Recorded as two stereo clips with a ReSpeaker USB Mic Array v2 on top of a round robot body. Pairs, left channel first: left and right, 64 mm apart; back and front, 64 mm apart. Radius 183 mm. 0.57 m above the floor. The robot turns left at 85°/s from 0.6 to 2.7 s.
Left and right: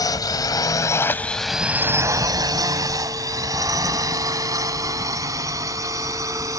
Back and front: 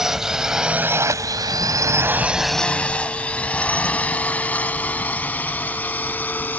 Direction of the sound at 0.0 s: 80° left.